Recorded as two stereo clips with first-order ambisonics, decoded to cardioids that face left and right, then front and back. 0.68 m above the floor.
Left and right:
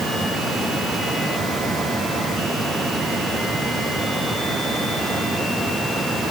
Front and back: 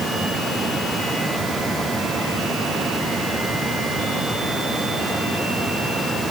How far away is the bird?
No bird in this recording.